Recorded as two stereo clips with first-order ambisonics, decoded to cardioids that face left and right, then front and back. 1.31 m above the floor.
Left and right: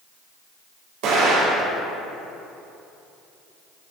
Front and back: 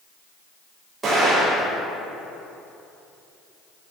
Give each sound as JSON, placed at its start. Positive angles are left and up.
{"t": 1.0, "sound": "an explosion", "azimuth_deg": -105, "distance_m": 1.8}